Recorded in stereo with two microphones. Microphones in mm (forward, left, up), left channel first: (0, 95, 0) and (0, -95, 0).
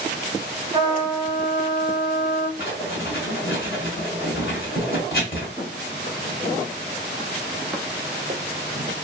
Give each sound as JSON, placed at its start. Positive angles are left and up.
{"t": 0.7, "sound": "a trumpet", "side_deg": -25, "distance_m": 0.6}
{"t": 2.6, "sound": "writing", "side_deg": 55, "distance_m": 1.6}
{"t": 5.6, "sound": "footsteps", "side_deg": 65, "distance_m": 1.5}